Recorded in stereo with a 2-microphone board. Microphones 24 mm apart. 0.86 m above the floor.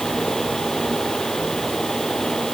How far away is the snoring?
No snoring in this recording.